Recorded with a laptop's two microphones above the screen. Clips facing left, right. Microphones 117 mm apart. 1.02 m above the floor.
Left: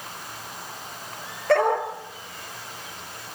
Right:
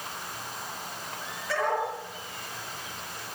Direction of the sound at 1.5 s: 60° left (ahead or behind).